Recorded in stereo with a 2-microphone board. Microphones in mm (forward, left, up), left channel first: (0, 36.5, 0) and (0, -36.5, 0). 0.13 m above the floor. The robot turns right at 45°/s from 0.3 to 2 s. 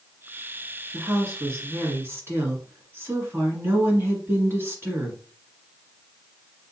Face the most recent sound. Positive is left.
turn(degrees=-80)